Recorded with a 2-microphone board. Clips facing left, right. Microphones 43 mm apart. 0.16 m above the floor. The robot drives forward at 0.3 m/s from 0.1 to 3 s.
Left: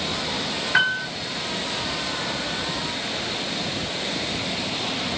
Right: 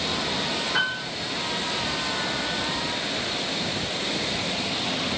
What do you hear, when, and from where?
0.7 s a piano: 60° left (ahead or behind), 0.6 m; by 1.1 s 65° left (ahead or behind), 0.5 m